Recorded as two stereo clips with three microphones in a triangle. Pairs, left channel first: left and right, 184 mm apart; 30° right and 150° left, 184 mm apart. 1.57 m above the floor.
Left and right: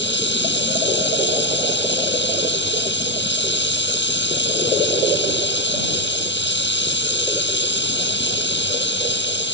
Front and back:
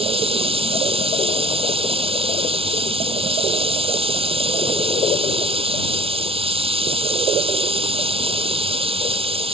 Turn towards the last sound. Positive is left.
turn(degrees=90)